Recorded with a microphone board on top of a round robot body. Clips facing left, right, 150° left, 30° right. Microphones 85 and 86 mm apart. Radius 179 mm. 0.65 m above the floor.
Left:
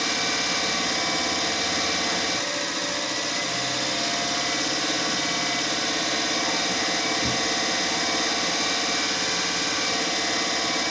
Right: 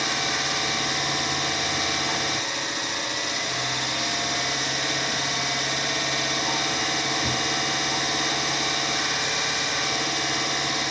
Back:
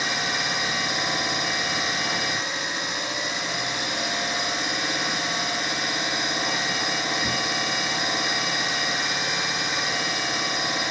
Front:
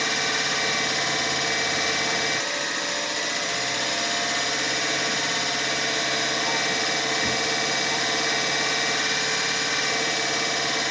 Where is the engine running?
70° left, 3 m.